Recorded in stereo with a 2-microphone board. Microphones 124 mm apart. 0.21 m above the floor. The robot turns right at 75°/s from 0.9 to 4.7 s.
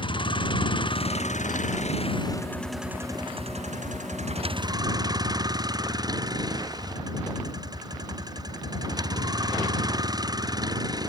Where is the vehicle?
45° left; by 11.1 s 30° right.